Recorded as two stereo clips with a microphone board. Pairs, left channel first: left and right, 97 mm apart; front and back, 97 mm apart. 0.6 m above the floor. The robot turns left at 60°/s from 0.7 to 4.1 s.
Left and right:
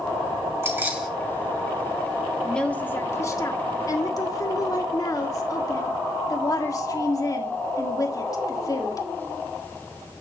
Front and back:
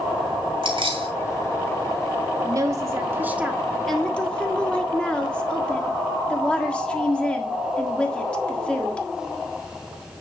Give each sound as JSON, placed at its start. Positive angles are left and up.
{"t": 0.6, "sound": "keys jangling", "azimuth_deg": -150, "distance_m": 2.5}
{"t": 2.4, "sound": "a woman speaking", "azimuth_deg": 175, "distance_m": 1.5}